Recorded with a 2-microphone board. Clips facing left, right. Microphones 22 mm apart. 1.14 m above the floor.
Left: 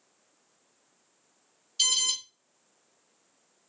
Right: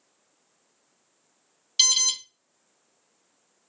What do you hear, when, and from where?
1.8 s an alarm: 75° right (ahead or behind), 0.7 m